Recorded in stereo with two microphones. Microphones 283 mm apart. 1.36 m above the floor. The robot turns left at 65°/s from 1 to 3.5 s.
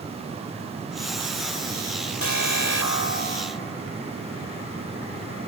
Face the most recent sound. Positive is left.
turn(degrees=15)